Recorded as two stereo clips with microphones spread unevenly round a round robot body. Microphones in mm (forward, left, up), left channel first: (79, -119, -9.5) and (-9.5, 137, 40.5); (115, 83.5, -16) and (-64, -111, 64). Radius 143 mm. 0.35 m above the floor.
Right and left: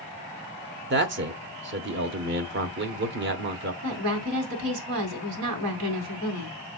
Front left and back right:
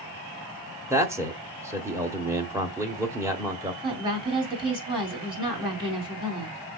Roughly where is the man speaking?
Behind left.